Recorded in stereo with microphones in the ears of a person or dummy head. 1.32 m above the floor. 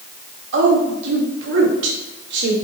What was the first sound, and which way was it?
A woman speaking, 75° right (ahead or behind).